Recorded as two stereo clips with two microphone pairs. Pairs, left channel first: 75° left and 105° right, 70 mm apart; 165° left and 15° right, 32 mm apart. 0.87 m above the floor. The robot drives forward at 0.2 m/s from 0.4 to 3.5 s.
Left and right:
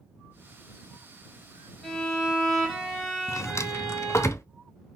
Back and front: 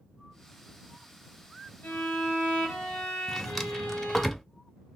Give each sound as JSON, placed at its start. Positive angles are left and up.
{"t": 1.8, "sound": "a violin", "azimuth_deg": 160, "distance_m": 2.0}
{"t": 3.3, "sound": "a drawer", "azimuth_deg": 80, "distance_m": 0.5}